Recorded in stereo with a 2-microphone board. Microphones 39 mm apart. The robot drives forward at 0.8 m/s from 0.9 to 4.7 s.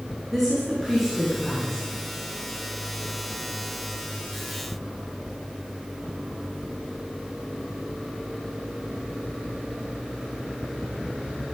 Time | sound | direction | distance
0.3 | a woman speaking | 5° right (ahead or behind) | 5.5 m